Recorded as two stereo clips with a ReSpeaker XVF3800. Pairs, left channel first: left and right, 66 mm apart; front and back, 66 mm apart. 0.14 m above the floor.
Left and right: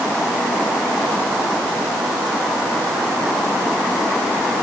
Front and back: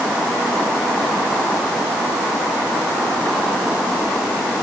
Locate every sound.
Only background noise.